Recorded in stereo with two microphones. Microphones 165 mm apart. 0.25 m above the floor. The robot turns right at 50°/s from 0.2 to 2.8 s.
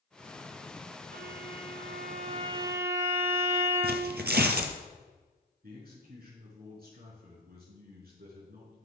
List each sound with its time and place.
1.1 s a violin: 100° right, 1.1 m; by 4.2 s 15° right, 1.1 m
3.8 s tearing paper: 85° right, 1.1 m
5.6 s a man speaking: 65° right (ahead or behind), 4 m